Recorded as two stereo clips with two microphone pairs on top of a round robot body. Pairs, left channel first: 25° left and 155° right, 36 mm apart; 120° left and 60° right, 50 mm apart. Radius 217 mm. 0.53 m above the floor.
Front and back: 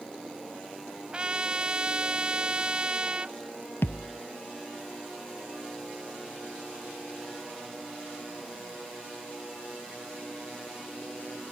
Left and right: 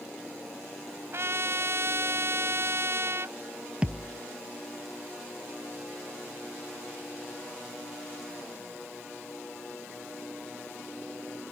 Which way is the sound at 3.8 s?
10° left.